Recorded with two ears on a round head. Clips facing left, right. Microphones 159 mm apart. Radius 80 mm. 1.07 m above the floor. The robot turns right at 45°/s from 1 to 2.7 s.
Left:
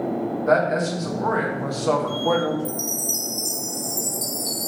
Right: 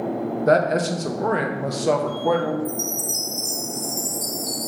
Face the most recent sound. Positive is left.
turn(degrees=15)  # may be behind; listen again after turning